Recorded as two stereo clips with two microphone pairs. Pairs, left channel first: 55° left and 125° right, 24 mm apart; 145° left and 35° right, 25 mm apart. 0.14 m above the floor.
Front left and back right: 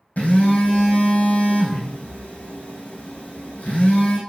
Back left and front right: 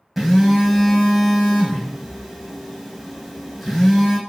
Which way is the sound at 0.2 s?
50° left.